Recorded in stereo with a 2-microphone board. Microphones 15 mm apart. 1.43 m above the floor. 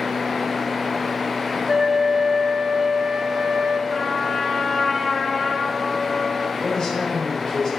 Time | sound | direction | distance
1.7 | a flute | 30° right (ahead or behind) | 0.7 m
3.9 | a trumpet | 35° left (ahead or behind) | 2.5 m
6.6 | a man speaking | 60° left (ahead or behind) | 3.5 m